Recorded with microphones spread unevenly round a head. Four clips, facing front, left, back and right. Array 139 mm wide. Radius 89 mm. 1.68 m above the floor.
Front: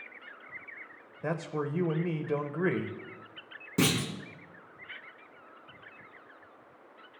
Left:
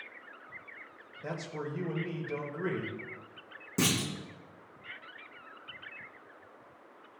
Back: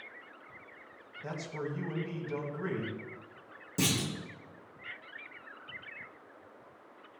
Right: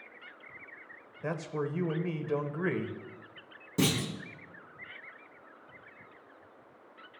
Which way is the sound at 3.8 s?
20° left.